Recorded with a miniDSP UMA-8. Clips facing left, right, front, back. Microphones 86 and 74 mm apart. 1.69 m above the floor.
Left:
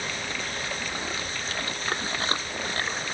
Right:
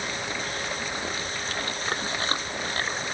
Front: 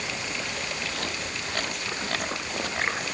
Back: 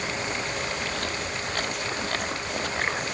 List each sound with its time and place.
Only background noise.